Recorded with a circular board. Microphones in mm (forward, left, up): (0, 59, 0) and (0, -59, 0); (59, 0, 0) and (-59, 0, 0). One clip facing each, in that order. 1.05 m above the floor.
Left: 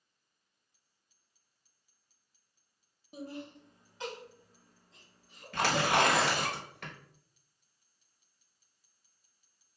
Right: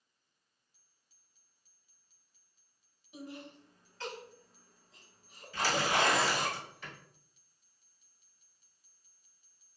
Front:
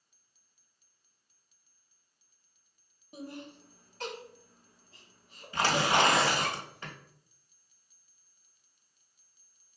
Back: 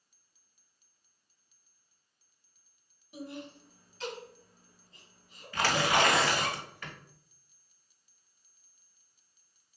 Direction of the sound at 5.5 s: 65° left.